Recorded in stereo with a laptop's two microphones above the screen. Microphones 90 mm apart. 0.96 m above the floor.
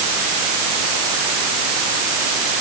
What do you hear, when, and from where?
Only background noise.